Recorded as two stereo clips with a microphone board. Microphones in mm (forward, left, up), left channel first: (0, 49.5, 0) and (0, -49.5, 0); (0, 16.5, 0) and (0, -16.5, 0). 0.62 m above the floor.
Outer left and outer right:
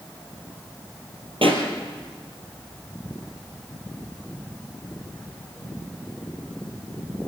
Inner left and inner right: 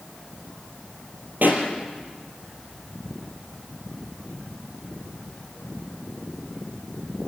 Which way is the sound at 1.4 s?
65° right (ahead or behind).